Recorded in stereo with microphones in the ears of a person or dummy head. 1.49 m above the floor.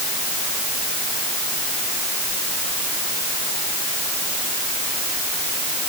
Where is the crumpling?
I don't hear crumpling.